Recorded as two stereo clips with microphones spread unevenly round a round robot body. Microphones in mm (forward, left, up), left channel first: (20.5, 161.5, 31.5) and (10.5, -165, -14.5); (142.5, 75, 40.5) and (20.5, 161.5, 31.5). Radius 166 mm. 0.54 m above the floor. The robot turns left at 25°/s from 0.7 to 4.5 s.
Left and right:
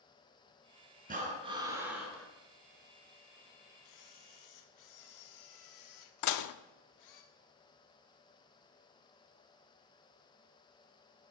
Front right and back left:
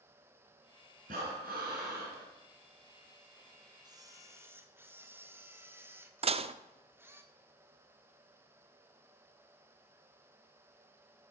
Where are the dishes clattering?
110° left, 0.6 m.